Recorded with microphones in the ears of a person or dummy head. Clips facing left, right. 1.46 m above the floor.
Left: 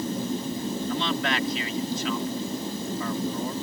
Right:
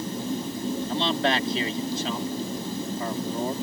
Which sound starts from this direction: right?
A man speaking, at 0.9 s.